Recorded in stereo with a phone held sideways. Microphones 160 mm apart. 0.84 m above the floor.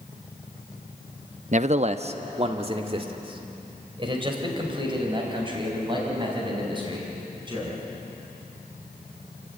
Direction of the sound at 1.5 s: 50° right (ahead or behind).